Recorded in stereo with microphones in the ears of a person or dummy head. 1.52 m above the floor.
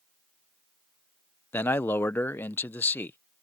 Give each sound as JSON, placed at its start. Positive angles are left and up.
{"t": 1.5, "sound": "a man speaking", "side_deg": 15}